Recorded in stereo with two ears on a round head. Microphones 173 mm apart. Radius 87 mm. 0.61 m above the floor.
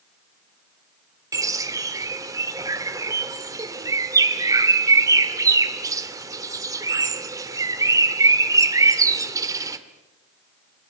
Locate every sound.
1.3 s a bird: 20° right (ahead or behind), 2.0 m